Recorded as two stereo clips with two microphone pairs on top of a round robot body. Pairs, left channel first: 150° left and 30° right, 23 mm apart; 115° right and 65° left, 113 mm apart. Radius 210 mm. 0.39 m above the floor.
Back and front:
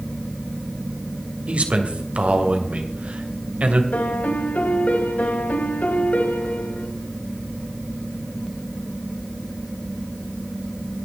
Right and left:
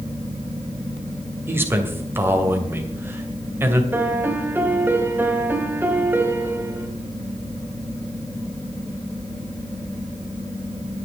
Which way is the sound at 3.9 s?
135° left.